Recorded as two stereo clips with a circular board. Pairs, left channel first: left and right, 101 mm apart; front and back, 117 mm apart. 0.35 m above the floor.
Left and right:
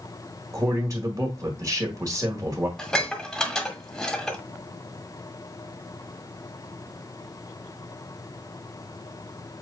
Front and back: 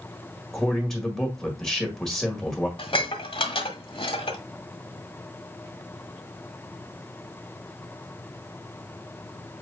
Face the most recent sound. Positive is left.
turn(degrees=10)